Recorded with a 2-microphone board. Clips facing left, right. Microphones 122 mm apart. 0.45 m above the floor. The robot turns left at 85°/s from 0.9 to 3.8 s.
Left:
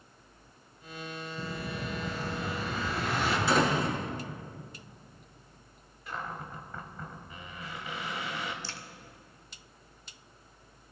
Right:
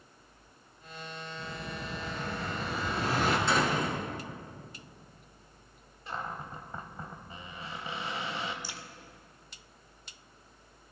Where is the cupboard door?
30° right (ahead or behind), 1.6 m.